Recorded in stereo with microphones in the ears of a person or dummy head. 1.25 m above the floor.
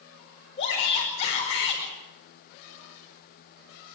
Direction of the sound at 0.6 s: 30° left (ahead or behind).